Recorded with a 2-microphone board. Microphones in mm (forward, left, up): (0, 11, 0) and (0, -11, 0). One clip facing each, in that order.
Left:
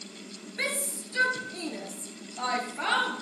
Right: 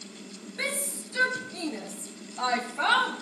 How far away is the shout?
About 2.5 m.